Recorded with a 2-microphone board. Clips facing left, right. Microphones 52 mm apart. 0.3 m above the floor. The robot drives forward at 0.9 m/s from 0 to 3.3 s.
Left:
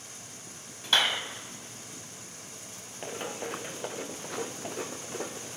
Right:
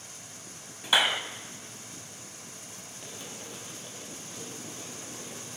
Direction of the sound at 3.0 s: 45° left (ahead or behind).